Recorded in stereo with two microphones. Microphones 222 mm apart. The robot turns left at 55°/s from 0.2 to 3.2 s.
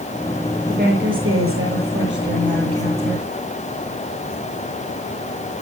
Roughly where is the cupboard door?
No cupboard door in this recording.